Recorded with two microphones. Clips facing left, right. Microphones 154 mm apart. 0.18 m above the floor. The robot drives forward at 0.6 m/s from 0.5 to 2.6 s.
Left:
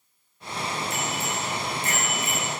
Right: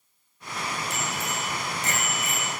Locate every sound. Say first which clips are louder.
0.9 s a bicycle bell: left 2 dB; 80° right, 5 m; by 2.5 s 70° right (ahead or behind), 5 m